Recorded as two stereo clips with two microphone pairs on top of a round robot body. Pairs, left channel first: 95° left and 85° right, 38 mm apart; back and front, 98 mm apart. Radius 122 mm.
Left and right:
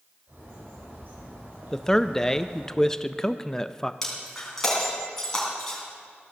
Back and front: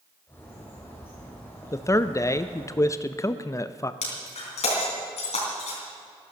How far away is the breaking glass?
About 3.5 m.